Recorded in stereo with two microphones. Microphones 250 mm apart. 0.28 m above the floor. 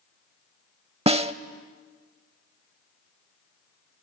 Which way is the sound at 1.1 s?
25° right (ahead or behind).